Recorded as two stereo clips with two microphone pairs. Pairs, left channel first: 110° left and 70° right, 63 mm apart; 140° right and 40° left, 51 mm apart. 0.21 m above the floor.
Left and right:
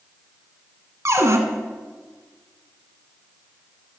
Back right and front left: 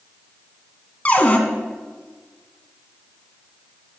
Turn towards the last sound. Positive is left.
turn(degrees=-90)